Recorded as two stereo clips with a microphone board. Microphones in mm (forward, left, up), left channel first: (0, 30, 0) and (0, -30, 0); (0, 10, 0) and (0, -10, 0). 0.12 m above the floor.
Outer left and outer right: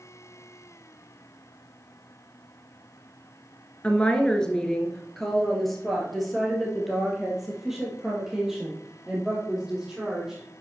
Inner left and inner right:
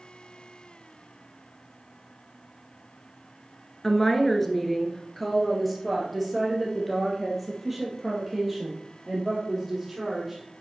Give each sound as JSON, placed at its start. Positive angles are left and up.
{"t": 3.8, "sound": "a woman speaking", "side_deg": 20, "distance_m": 1.5}